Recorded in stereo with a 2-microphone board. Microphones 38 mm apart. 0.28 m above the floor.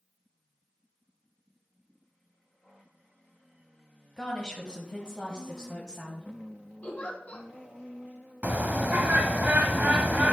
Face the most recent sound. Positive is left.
turn(degrees=-45)  # may be behind; listen again after turning